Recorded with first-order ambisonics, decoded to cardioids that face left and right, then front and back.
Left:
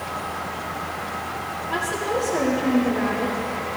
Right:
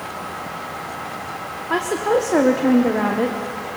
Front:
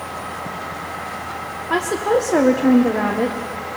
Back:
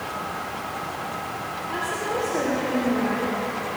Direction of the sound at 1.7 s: 40° right.